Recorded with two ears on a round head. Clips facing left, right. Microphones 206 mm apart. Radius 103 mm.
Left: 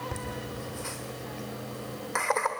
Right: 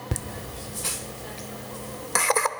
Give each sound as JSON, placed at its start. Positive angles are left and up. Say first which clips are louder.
{"t": 0.1, "sound": "laughter", "louder": "right 1 dB", "side_deg": -45, "distance_m": 1.1}